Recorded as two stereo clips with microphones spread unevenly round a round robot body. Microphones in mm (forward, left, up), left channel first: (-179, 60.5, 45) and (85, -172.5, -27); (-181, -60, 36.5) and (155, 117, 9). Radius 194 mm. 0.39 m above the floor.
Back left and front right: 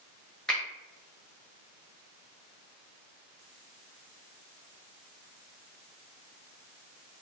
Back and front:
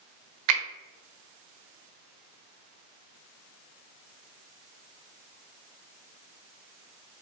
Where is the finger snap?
40° left, 1.0 m.